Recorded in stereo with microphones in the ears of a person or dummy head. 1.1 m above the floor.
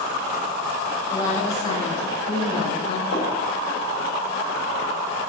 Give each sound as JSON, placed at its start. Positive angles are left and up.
{"t": 1.1, "sound": "a woman speaking", "side_deg": 15, "distance_m": 4.5}
{"t": 3.1, "sound": "a gunshot", "side_deg": 70, "distance_m": 4.0}